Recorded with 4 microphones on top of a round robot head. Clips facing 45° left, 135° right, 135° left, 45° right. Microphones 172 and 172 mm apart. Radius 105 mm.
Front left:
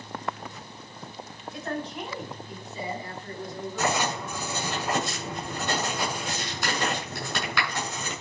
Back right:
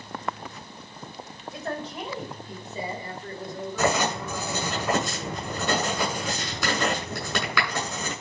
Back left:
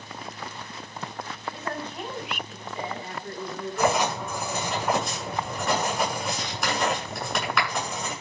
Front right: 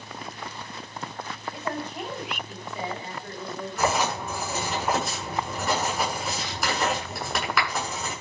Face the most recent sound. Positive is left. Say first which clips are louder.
# back right 3 dB, back left 2 dB
turn(degrees=-135)